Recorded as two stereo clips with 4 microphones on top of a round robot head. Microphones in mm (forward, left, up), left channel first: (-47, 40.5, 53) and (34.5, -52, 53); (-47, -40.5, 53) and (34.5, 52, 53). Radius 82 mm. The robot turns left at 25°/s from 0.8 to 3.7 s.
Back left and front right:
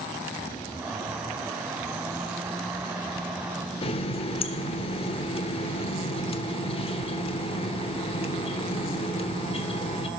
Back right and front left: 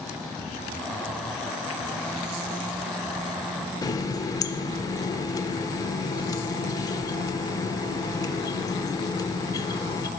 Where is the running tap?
170° left, 0.7 m.